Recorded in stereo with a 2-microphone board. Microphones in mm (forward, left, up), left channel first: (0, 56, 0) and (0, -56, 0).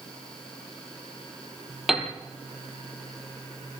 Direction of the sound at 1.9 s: 5° right (ahead or behind).